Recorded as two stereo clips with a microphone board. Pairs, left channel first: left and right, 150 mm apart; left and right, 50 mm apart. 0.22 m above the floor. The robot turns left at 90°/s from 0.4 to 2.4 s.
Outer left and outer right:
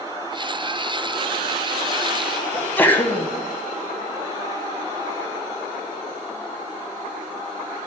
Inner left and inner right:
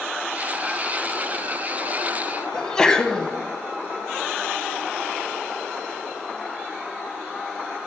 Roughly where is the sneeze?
Centre.